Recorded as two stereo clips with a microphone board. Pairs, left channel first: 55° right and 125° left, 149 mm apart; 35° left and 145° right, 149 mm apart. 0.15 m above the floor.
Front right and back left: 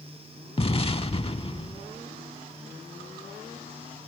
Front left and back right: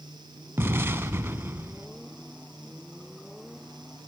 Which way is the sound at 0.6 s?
80° right.